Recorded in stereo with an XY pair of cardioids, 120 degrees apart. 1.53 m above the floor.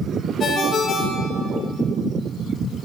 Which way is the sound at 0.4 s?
40° left.